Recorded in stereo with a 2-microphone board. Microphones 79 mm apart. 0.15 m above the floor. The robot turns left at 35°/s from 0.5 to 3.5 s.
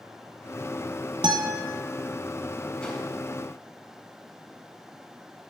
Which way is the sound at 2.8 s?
15° left (ahead or behind).